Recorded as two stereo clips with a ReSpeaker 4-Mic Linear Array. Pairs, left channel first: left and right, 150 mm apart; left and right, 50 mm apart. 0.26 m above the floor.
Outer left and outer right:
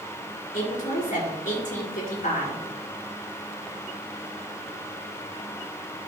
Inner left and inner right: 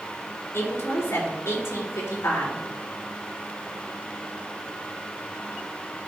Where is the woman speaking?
70° left (ahead or behind), 4 m.